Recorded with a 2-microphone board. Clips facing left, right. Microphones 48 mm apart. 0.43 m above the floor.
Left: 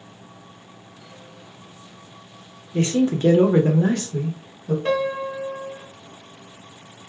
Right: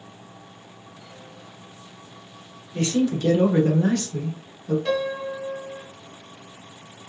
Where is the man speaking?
30° left (ahead or behind), 1.0 m; by 4.8 s 15° left (ahead or behind), 1.1 m.